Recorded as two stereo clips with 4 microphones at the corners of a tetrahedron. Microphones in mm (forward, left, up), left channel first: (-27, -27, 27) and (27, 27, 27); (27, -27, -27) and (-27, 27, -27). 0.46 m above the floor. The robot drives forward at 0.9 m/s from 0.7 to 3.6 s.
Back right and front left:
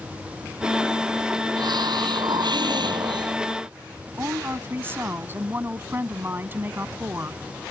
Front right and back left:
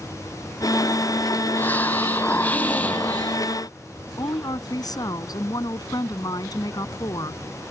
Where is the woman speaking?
15° right.